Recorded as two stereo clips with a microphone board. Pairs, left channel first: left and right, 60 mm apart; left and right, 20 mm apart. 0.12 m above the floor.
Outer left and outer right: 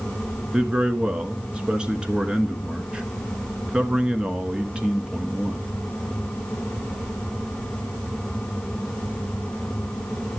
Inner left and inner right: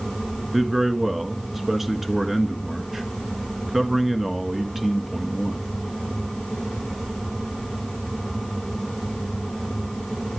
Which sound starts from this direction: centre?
A man speaking, at 0.5 s.